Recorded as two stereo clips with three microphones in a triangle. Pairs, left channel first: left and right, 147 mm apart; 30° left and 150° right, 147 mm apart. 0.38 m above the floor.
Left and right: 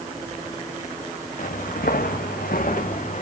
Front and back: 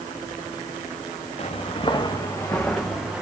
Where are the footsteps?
70° left, 2 m; by 3.2 s 125° left, 2.5 m.